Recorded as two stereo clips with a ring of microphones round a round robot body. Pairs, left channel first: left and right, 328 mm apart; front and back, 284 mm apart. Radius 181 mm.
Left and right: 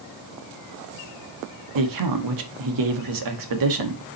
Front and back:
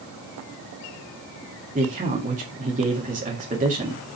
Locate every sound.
1.8 s a man speaking: 115° right, 1.8 m